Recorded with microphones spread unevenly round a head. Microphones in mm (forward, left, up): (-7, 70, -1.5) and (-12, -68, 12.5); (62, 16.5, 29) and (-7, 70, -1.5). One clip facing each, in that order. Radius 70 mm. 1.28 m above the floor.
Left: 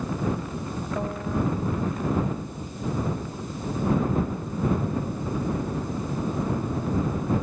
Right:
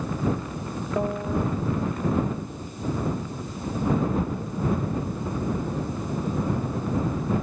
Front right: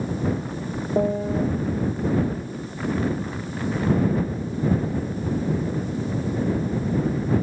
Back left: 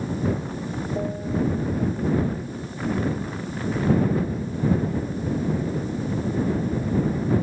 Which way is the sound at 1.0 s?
15° right.